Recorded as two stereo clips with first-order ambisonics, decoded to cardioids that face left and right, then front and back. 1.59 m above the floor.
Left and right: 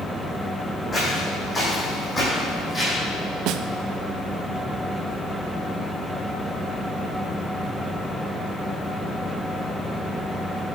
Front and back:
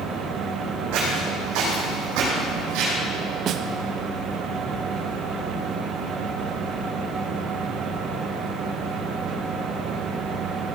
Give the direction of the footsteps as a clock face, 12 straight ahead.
6 o'clock.